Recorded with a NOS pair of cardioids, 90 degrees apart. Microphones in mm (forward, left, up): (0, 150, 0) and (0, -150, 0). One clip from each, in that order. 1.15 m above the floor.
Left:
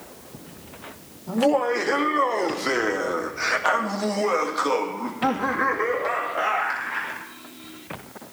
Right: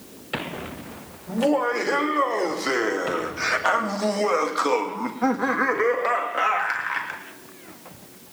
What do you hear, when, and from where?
1.3 s laughter: 25° left, 3 m; by 7.2 s 60° right, 3 m